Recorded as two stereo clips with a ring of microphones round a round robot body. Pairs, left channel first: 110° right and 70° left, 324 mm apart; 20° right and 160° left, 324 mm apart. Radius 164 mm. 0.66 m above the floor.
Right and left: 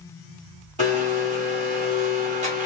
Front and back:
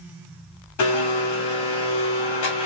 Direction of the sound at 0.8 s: Straight ahead.